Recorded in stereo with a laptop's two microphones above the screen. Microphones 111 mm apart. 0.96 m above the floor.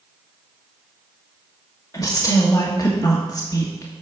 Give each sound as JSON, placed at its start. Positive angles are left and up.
{"t": 1.9, "sound": "a woman speaking", "side_deg": 30, "distance_m": 1.4}